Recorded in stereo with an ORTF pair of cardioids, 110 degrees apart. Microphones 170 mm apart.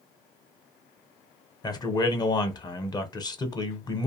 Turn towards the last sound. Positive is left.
turn(degrees=25)